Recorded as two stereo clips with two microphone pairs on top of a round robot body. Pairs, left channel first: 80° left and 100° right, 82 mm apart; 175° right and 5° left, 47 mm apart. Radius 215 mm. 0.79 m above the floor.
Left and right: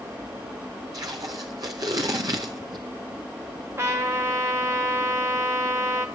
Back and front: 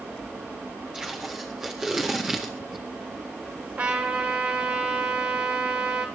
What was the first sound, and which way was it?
Tape being pulled, 65° right.